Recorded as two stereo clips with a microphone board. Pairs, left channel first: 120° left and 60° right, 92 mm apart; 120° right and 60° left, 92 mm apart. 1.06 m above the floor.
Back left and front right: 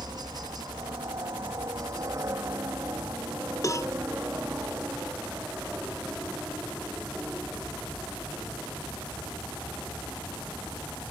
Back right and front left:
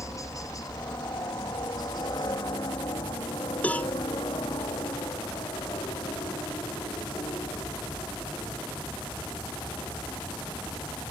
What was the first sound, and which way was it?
A helicopter, 80° right.